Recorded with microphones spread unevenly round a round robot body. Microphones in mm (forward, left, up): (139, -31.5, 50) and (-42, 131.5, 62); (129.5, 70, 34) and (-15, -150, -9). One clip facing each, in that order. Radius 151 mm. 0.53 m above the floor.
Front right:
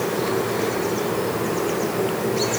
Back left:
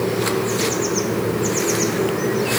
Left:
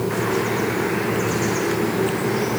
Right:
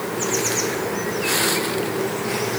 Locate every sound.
Only background noise.